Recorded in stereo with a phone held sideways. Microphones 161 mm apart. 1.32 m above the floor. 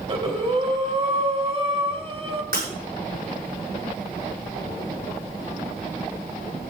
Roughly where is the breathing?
Right.